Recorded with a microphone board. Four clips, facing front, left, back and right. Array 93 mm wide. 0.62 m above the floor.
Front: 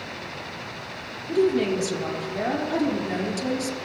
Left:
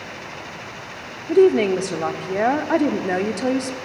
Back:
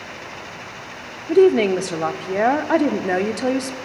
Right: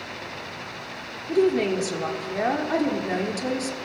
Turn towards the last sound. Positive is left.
turn(degrees=155)